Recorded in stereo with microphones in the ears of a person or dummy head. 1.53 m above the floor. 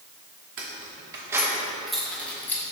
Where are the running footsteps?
No running footsteps in this recording.